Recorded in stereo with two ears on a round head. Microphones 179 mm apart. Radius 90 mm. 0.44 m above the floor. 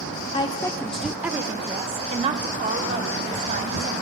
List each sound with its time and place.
0.3 s a woman speaking: 25° left (ahead or behind), 1.0 m; by 3.9 s 45° right (ahead or behind), 2.5 m